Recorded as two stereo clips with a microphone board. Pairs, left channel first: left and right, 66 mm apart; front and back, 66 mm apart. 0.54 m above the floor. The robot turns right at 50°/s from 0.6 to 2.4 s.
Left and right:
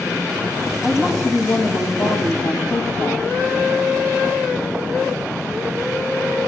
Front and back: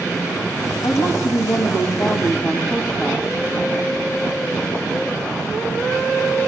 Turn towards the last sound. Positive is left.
turn(degrees=80)